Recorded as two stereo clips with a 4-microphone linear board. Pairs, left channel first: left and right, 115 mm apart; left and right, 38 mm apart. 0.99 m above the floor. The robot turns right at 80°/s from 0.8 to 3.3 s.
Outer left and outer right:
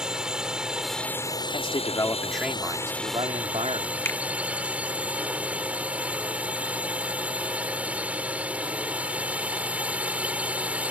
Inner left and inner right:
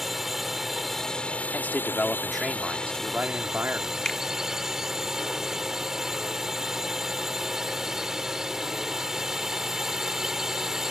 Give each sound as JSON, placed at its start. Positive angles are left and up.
{"t": 0.0, "sound": "a drone", "azimuth_deg": -10}
{"t": 1.5, "sound": "a man speaking", "azimuth_deg": 115}
{"t": 4.0, "sound": "a finger snap", "side_deg": 20}